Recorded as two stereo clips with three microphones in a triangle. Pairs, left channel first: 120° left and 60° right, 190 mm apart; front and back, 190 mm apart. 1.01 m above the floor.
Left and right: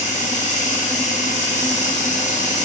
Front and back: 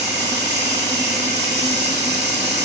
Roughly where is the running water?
Behind.